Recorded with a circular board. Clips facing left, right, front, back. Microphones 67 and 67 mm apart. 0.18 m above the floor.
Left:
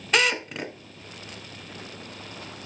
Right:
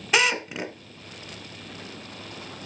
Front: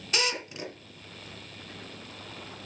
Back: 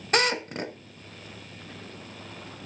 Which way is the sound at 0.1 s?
170° right.